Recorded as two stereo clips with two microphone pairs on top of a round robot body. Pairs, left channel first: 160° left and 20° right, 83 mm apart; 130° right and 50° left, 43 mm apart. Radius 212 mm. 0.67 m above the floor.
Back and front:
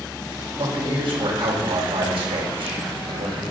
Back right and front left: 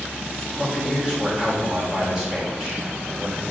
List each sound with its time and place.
0.6 s a man speaking: 25° right, 3.5 m